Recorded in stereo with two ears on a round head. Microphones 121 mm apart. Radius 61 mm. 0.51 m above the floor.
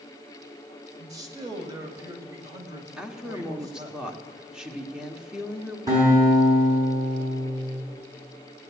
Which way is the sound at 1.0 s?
25° right (ahead or behind).